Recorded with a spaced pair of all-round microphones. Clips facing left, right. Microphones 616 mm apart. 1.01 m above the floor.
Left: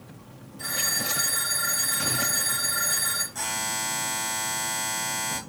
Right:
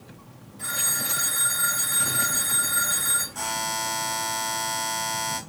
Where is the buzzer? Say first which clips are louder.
Right 3 dB; 45° left (ahead or behind), 1.4 m.